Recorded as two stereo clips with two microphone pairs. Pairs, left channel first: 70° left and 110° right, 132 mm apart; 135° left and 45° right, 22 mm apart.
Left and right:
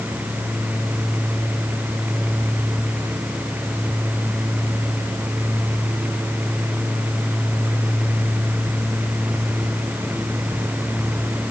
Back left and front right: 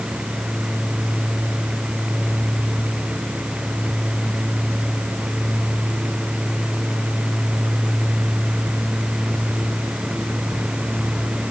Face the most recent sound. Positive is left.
No sound to turn to.